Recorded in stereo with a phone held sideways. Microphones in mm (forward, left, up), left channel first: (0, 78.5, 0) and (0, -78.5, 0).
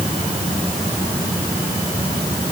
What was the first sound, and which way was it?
Only background noise.